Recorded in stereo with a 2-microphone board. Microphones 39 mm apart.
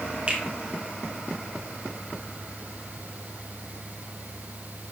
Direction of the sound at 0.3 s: 25° right (ahead or behind).